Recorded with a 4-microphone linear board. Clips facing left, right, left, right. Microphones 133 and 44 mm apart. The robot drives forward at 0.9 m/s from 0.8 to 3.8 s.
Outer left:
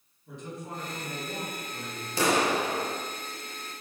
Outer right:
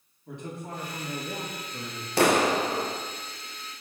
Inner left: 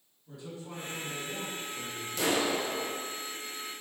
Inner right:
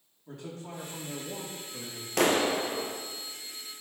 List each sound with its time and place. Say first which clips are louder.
0.3 s a man speaking: outer right 2 dB, inner right 2 dB; 60° right (ahead or behind), 1.9 m; by 2.1 s 75° right (ahead or behind), 1.7 m
2.2 s a clap: outer right 3 dB, inner right 4 dB; 70° right (ahead or behind), 0.7 m; by 3.0 s 35° right (ahead or behind), 1.2 m